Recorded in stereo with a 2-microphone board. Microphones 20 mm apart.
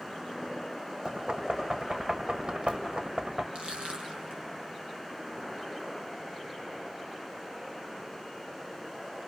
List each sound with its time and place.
1.1 s knocking: 55° right (ahead or behind), 1.7 m
3.5 s crushing: 60° right (ahead or behind), 7 m